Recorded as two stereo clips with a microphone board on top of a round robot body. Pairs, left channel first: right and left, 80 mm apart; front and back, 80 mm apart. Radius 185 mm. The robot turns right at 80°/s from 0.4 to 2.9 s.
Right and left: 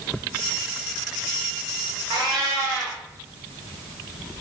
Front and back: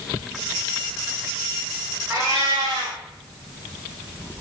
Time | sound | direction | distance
2.1 | a cat meowing | 115° left | 0.9 m